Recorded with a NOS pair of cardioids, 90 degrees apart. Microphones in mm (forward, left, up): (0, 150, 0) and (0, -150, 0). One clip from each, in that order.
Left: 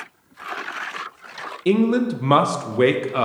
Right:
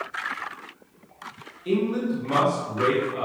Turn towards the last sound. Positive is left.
turn(degrees=60)